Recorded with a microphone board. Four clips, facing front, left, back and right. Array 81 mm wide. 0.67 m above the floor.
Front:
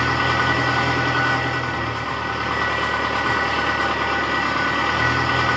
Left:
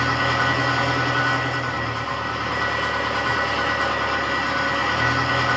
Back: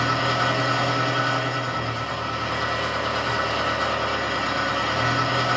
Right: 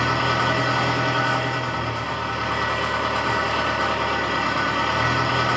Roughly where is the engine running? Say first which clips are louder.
Even, front 3 dB; ahead.